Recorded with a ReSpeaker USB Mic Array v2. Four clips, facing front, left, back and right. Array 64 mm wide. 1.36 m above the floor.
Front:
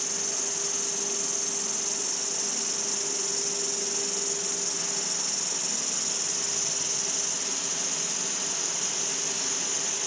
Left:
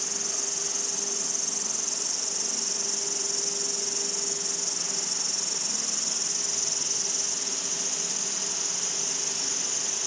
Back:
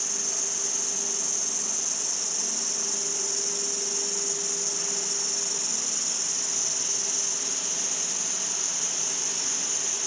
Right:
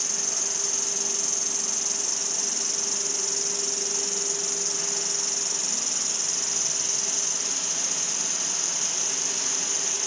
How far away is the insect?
About 3.5 m.